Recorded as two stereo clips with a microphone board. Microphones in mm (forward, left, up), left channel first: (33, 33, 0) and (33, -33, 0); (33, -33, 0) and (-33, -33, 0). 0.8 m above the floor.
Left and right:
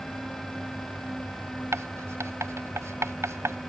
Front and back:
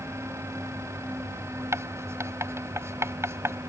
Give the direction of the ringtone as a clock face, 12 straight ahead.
No ringtone in this recording.